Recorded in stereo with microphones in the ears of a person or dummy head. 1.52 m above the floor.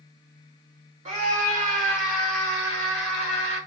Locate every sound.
1.1 s a scream: 35° right (ahead or behind), 1.4 m; by 3.6 s 60° right (ahead or behind), 3.5 m